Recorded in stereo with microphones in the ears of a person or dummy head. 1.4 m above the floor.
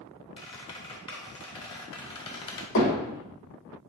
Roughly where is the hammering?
Left.